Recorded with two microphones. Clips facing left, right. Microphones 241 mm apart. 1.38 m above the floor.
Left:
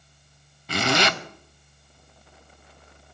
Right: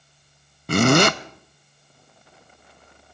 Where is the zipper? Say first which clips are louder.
Right 8 dB; 55° right (ahead or behind), 0.6 m.